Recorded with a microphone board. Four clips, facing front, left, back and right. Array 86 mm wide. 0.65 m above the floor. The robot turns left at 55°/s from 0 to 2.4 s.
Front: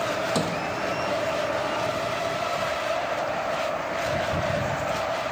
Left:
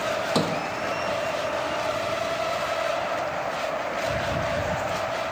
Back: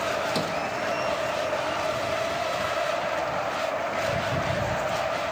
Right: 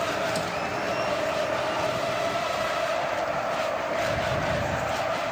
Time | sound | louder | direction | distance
0.3 | a sliding door | left 4 dB, front 1 dB | 85° left | ?